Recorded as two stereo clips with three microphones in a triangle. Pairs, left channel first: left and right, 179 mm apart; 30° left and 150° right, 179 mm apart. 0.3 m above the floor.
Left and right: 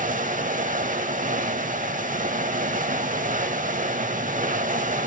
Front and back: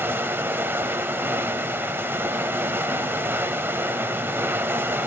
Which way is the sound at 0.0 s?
75° right.